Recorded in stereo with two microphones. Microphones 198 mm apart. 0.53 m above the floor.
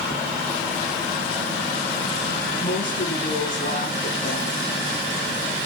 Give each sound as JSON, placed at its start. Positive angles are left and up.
{"t": 2.6, "sound": "a woman speaking", "side_deg": 75, "distance_m": 4.0}